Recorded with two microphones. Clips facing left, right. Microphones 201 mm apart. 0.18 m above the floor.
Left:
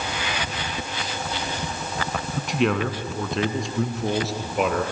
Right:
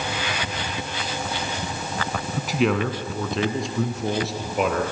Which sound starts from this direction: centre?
A man speaking, at 2.4 s.